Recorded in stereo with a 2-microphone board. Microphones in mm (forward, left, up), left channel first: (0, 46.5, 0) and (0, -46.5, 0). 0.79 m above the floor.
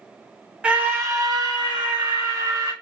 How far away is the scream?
About 1.0 m.